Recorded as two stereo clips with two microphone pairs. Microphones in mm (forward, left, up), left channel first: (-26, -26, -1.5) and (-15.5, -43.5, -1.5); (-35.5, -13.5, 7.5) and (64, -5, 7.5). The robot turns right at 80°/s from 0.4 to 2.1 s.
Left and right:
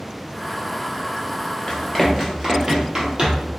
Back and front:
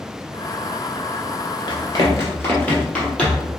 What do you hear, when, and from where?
1.7 s running footsteps: straight behind, 1.4 m; by 3.5 s 90° right, 2 m